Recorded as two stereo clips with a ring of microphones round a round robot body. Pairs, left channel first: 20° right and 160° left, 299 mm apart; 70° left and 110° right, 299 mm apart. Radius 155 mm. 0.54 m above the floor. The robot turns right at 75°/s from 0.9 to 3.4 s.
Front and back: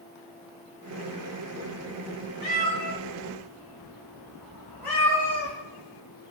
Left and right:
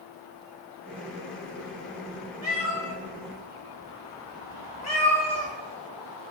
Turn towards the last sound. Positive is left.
turn(degrees=75)